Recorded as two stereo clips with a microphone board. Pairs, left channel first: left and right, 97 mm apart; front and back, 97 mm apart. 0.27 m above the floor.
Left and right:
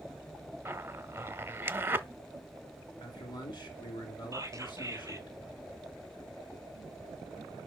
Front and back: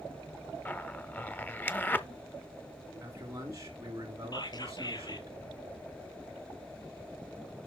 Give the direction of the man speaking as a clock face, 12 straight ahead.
8 o'clock.